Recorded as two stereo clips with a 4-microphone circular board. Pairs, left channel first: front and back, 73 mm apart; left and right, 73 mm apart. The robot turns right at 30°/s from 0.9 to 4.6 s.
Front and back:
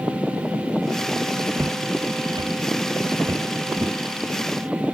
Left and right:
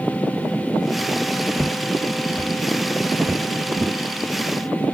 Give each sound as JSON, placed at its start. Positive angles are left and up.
{"t": 1.6, "sound": "footsteps", "azimuth_deg": 150, "distance_m": 1.9}